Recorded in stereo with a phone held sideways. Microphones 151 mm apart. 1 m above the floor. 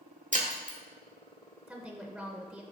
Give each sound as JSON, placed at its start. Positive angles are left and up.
{"t": 0.3, "sound": "breaking glass", "side_deg": -55, "distance_m": 1.0}
{"t": 1.7, "sound": "a woman speaking", "side_deg": -5, "distance_m": 0.8}